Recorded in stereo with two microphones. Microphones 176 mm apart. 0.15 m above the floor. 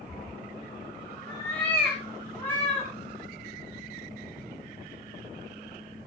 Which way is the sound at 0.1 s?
Centre (ahead or behind).